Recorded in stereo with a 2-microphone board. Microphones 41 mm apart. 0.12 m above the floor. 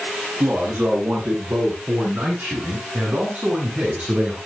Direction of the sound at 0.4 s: 55° right (ahead or behind).